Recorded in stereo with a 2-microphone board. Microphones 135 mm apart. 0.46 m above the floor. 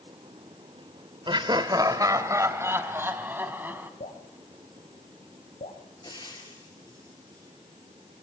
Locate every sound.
1.3 s laughter: 35° right (ahead or behind), 1.4 m; by 3.9 s 15° right (ahead or behind), 4 m
4.0 s dripping: 85° left, 5 m
6.0 s frying: 35° left (ahead or behind), 4.5 m